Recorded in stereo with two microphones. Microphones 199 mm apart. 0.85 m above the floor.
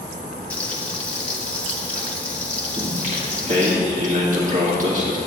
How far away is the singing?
About 1.6 m.